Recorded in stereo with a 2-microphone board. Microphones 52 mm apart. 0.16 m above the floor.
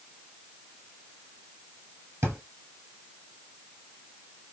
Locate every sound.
2.2 s a drawer: 40° right (ahead or behind), 2 m